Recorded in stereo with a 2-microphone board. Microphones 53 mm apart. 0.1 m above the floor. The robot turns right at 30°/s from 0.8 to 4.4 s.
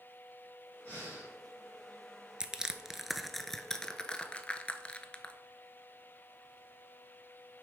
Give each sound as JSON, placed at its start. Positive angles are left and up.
{"t": 0.8, "sound": "breathing", "side_deg": 25, "distance_m": 3.0}
{"t": 2.4, "sound": "crushing", "side_deg": -15, "distance_m": 0.5}